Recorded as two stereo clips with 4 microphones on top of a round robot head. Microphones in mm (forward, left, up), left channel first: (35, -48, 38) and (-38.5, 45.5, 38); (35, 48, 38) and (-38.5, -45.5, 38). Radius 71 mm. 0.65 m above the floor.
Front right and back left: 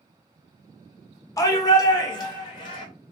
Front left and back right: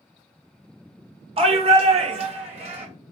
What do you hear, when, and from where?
1.4 s a shout: 110° right, 1.2 m; by 2.9 s 100° right, 2.5 m